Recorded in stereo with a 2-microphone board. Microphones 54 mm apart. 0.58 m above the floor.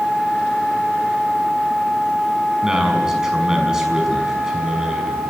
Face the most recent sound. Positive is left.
turn(degrees=-10)  # may be behind; listen again after turning